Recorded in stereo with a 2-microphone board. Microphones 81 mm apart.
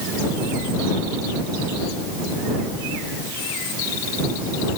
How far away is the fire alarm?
No fire alarm in this recording.